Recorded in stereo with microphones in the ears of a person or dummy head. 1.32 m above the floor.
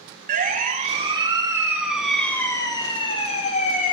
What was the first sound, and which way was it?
A siren, 35° right (ahead or behind).